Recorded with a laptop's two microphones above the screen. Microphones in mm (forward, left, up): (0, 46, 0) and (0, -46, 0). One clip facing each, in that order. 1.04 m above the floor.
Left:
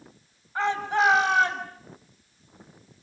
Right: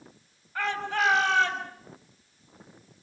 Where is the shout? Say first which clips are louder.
Left 4 dB; 20° left (ahead or behind), 7 m; by 1.7 s 10° left (ahead or behind), 7 m.